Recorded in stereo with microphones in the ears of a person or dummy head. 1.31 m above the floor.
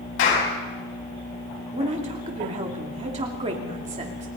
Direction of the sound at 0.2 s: 65° left (ahead or behind).